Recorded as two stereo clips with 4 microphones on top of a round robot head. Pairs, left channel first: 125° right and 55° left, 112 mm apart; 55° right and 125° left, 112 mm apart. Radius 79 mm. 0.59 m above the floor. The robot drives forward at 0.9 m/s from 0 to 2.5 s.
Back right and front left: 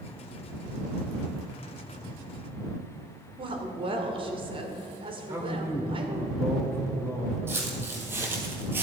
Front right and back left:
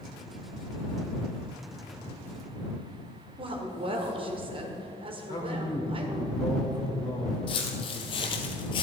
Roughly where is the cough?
No cough in this recording.